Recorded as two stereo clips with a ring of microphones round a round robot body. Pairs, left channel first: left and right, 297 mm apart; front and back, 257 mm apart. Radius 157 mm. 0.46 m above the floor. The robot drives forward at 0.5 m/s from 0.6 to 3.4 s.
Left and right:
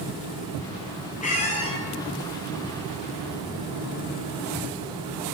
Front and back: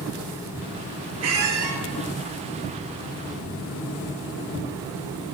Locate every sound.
1.2 s a squeak: 155° left, 1.1 m; by 1.8 s 160° left, 1.4 m